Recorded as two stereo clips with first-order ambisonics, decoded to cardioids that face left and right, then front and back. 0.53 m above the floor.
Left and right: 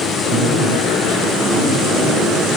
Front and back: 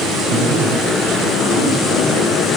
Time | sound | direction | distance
0.3 | a man speaking | 135° right | 7.5 m